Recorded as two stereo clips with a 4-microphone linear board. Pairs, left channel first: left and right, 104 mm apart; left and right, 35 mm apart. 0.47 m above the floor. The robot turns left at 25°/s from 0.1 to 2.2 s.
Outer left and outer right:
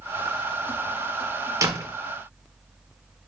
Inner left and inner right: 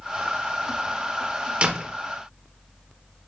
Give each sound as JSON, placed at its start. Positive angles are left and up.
{"t": 1.6, "sound": "a door slam", "side_deg": -30, "distance_m": 1.1}